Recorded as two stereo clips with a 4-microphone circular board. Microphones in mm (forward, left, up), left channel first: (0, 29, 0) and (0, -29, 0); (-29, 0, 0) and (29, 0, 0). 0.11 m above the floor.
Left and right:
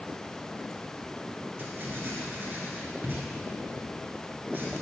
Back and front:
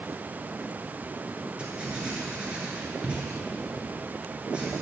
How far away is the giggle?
I don't hear a giggle.